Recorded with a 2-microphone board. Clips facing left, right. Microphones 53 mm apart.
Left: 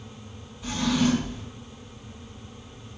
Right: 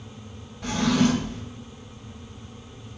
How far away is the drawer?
About 2.5 m.